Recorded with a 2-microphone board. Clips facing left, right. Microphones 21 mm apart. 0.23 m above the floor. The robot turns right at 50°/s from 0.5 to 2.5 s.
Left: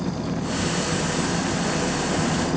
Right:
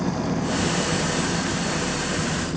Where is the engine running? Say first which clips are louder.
Right 2 dB; 25° right; by 2.6 s 75° left.